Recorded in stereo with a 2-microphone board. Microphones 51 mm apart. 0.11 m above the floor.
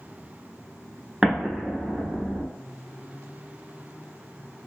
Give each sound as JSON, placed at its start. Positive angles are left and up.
{"t": 1.2, "sound": "an explosion", "side_deg": -15, "distance_m": 0.6}